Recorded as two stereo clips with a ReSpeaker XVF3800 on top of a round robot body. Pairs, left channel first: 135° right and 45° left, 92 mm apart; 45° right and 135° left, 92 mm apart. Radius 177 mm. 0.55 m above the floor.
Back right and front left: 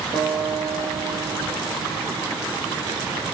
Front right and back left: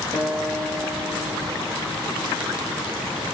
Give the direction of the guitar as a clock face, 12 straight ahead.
12 o'clock.